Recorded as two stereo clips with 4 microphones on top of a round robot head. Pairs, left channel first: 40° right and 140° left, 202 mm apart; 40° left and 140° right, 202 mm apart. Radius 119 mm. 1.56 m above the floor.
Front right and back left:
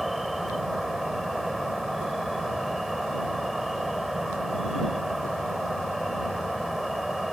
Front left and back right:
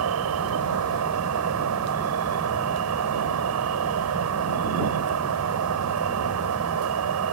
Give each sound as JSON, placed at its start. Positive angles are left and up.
{"t": 0.0, "sound": "an insect", "azimuth_deg": -130}